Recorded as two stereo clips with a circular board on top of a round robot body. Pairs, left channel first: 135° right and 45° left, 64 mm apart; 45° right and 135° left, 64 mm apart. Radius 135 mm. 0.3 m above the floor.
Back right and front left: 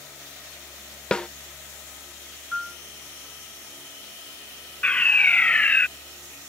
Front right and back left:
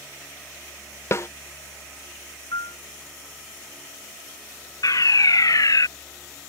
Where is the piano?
45° right.